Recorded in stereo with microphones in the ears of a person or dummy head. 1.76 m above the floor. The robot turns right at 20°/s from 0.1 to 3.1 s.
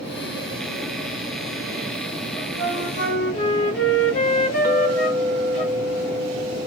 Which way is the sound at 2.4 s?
45° left (ahead or behind).